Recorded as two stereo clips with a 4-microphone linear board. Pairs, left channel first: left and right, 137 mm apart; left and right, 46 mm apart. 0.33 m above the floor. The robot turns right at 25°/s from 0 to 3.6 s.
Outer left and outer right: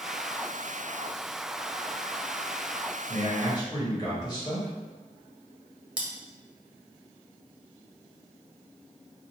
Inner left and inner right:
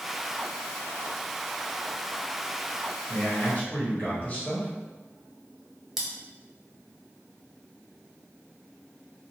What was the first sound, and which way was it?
A man speaking, 25° left (ahead or behind).